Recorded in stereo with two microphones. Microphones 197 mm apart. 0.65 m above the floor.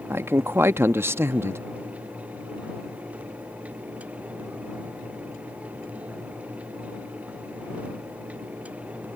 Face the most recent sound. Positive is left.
turn(degrees=-15)  # may be behind; listen again after turning